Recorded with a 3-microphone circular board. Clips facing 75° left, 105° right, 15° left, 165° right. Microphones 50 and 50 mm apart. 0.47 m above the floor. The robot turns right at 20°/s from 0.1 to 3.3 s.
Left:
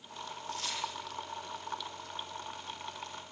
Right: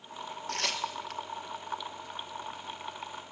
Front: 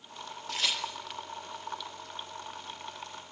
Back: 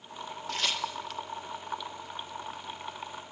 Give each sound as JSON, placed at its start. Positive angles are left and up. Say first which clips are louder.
{"t": 0.5, "sound": "tearing paper", "louder": "right 5 dB, back 1 dB", "azimuth_deg": -75, "distance_m": 4.0}